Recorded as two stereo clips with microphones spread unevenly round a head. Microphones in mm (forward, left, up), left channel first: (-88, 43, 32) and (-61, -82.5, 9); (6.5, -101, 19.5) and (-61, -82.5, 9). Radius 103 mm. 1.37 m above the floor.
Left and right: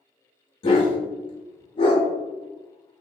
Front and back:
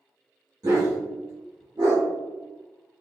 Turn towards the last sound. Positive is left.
turn(degrees=110)